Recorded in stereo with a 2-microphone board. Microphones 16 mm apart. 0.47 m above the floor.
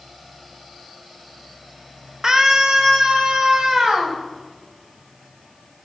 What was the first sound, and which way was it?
A scream, 40° right (ahead or behind).